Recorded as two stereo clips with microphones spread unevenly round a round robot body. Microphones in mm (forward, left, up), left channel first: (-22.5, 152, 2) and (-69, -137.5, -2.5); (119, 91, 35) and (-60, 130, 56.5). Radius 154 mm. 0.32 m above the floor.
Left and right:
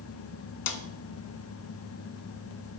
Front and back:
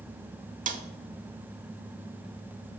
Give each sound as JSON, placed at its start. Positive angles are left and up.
{"t": 0.7, "sound": "a snare drum", "azimuth_deg": 120, "distance_m": 1.0}